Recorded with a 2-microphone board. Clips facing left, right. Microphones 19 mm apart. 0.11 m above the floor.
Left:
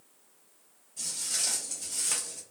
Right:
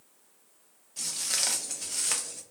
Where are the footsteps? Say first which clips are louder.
Right 2 dB; 75° right (ahead or behind), 1.1 m; by 2.4 s 10° right (ahead or behind), 1.0 m.